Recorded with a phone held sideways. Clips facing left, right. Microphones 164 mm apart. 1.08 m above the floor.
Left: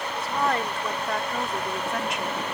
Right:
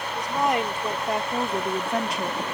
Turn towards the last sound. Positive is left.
turn(degrees=-40)  # may be behind; listen again after turning